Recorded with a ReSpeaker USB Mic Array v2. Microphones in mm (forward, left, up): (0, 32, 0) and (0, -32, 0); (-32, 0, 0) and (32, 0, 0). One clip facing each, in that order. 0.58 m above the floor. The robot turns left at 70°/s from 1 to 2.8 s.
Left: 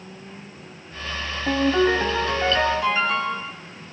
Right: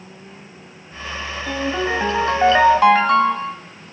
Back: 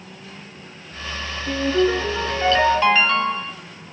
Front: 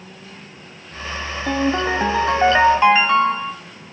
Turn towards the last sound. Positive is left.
turn(degrees=-70)